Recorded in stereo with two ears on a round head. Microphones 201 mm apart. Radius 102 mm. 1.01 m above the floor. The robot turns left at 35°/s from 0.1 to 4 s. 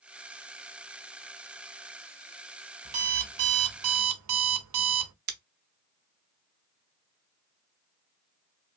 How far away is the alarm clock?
About 0.5 m.